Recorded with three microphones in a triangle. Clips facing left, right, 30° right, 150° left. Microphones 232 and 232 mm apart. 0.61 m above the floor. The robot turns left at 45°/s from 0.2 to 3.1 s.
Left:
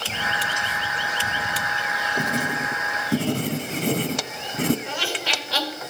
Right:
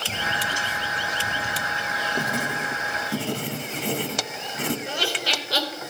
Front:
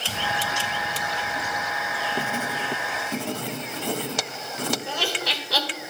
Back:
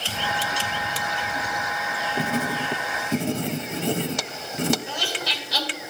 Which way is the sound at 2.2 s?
135° left.